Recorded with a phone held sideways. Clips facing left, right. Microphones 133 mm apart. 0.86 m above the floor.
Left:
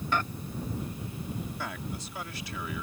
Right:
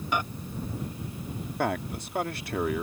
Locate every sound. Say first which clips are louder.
0.1 s a microwave: right 1 dB; 15° right (ahead or behind)
1.6 s a man speaking: right 8 dB; 60° right (ahead or behind)